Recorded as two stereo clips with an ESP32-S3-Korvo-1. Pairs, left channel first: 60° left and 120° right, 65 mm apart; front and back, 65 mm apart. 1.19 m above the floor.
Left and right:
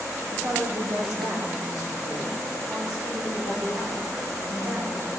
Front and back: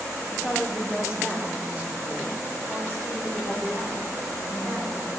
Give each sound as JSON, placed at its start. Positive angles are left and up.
{"t": 0.3, "sound": "a woman speaking", "azimuth_deg": -95, "distance_m": 3.5}